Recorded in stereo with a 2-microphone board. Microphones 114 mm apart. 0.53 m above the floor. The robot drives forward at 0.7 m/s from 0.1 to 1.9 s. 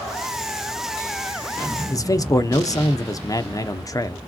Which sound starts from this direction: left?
A man speaking, at 1.9 s.